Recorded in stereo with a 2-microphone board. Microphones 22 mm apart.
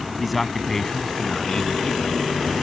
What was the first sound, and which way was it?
A man speaking, centre (ahead or behind).